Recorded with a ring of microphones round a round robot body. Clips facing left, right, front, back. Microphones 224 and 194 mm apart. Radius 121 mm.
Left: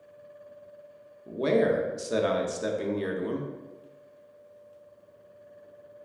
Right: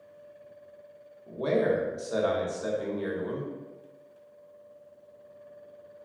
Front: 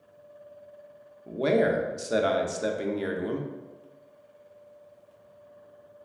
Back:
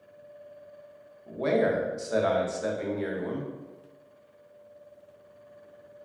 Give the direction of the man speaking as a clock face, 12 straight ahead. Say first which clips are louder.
Left 2 dB, front 2 dB; 10 o'clock.